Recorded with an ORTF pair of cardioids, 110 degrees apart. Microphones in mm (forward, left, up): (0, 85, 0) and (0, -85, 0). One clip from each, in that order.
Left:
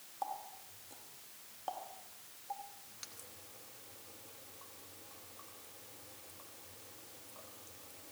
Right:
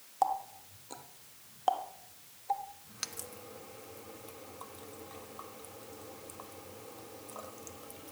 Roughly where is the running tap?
Ahead right.